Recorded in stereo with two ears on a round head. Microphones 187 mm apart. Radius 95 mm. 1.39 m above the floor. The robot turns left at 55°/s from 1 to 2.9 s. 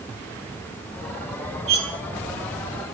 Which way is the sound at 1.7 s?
40° right (ahead or behind).